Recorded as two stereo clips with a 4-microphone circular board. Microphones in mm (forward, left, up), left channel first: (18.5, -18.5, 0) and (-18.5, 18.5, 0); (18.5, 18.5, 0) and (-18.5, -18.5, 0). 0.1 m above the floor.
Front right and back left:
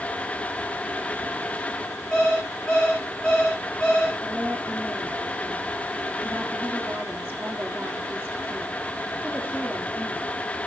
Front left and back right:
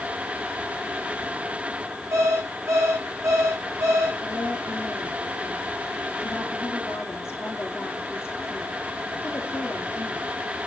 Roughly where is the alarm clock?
Behind right.